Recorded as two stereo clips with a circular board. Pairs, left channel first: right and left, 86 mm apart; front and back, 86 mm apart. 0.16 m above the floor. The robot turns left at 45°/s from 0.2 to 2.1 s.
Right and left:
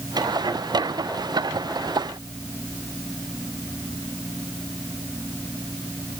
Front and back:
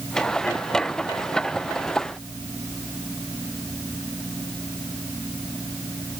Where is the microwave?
I don't hear a microwave.